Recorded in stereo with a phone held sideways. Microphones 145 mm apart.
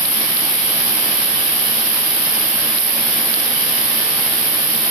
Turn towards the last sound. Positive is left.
turn(degrees=-70)  # may be behind; listen again after turning